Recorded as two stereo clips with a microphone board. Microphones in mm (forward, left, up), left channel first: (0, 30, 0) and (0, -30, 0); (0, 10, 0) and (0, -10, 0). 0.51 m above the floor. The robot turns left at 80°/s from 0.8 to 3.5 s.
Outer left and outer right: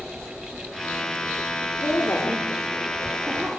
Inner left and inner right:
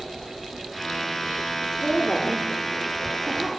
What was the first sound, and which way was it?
A woman speaking, 50° left (ahead or behind).